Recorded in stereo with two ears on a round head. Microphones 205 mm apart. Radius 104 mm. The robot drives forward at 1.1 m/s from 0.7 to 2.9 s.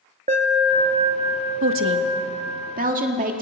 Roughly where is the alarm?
Right.